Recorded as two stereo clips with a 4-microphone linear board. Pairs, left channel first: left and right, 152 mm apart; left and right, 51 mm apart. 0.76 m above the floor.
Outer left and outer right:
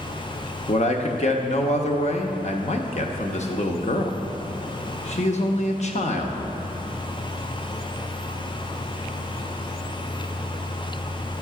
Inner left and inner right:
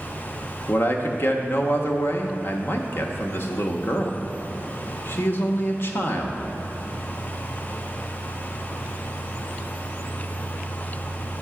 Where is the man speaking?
45° left (ahead or behind), 0.7 m.